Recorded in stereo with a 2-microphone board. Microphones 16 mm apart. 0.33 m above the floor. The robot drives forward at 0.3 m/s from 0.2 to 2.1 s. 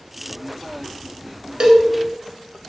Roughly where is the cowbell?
Right.